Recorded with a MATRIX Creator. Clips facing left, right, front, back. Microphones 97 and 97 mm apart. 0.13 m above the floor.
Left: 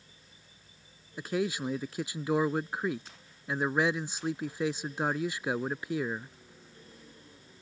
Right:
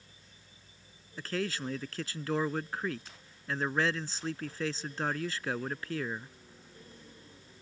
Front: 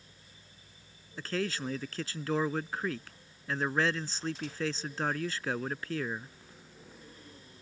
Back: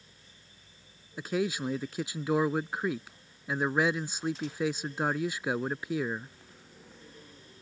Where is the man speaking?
130° left.